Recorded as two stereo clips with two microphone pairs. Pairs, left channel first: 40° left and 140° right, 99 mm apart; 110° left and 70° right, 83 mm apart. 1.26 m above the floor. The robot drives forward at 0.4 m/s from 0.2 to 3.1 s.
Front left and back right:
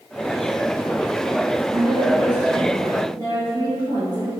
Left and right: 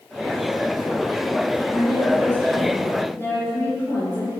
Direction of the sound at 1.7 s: 175° left.